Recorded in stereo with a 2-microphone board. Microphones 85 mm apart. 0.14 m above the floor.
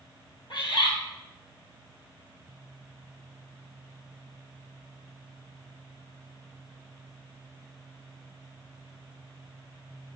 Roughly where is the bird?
Left.